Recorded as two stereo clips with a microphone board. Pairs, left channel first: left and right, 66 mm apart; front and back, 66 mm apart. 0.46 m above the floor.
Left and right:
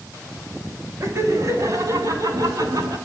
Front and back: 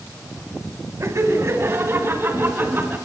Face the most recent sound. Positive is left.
turn(degrees=-120)